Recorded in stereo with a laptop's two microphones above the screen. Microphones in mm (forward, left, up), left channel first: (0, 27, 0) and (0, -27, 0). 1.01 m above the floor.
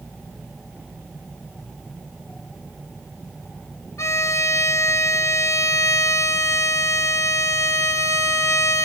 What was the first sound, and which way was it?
A violin, 65° left (ahead or behind).